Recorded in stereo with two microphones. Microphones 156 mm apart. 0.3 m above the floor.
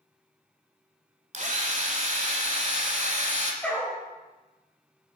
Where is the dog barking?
5° left (ahead or behind), 3 m.